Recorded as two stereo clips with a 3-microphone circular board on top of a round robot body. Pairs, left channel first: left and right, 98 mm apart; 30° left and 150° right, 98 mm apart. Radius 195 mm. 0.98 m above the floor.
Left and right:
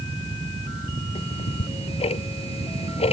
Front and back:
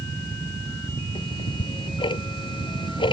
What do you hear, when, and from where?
1.1 s ticking: 70° left